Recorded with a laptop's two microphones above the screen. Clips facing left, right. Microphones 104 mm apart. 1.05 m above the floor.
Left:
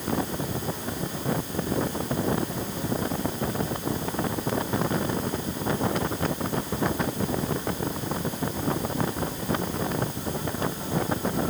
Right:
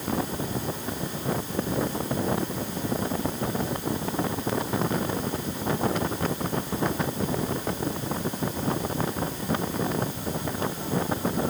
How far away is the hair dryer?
No hair dryer in this recording.